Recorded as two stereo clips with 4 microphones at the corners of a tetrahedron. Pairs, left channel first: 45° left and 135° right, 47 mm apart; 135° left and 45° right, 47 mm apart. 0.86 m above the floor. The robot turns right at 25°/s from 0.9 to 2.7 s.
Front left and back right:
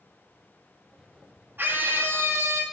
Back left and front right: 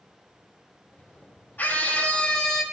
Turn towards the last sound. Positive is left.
turn(degrees=-145)